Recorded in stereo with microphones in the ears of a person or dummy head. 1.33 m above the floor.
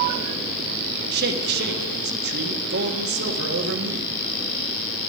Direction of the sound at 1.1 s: 60° right (ahead or behind).